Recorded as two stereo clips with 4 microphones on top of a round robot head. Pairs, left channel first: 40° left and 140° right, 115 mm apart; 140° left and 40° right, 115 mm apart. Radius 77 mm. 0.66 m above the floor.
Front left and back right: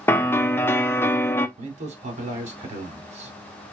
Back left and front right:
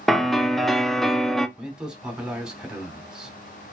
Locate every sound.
0.1 s a piano: 55° left, 0.7 m
1.6 s a man speaking: 125° right, 2 m